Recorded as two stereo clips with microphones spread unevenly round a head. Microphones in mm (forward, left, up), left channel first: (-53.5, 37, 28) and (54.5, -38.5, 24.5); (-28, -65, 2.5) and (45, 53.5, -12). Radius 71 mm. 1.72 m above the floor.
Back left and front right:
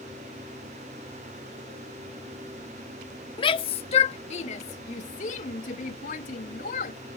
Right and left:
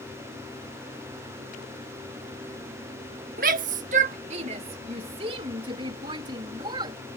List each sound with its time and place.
3.4 s a shout: 90° left; by 7.0 s 120° left